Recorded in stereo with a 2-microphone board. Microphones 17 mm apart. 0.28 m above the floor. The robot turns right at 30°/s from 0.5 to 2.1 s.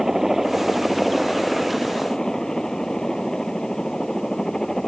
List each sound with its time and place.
0.0 s a helicopter: 15° right; by 4.9 s 35° left